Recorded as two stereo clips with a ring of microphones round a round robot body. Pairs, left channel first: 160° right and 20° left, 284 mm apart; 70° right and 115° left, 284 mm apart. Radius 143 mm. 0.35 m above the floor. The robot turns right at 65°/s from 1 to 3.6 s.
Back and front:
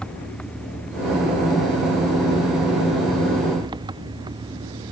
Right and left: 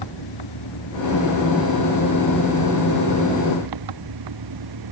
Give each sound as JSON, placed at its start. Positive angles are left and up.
{"t": 0.0, "sound": "an engine running", "azimuth_deg": -70}